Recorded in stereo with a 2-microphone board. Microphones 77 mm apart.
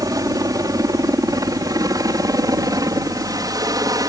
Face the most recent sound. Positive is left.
turn(degrees=-55)  # may be behind; listen again after turning